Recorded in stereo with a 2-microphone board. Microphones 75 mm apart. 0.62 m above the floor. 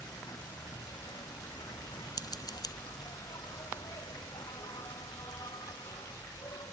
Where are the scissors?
60° left (ahead or behind).